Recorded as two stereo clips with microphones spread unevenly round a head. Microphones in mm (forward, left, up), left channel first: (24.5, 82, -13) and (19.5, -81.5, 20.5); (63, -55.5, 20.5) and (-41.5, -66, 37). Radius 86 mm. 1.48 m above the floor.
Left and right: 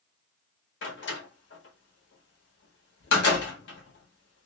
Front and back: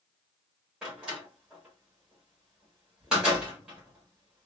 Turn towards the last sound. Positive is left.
turn(degrees=105)